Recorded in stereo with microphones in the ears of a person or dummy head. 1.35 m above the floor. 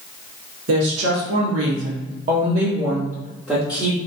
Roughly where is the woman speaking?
Right.